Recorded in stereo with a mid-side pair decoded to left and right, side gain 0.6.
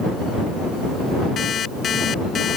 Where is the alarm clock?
40° left.